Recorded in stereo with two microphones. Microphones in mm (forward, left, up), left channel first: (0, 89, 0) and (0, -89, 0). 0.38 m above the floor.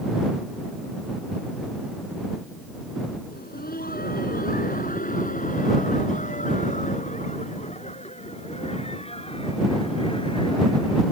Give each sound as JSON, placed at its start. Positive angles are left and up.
{"t": 3.3, "sound": "laughter", "side_deg": 60}